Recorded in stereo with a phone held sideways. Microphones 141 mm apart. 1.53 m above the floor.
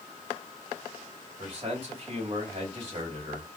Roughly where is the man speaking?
Right.